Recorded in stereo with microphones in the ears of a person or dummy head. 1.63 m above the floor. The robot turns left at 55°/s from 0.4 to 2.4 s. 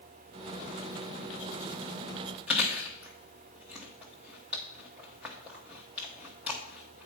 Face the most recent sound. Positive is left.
turn(degrees=-10)  # may be behind; listen again after turning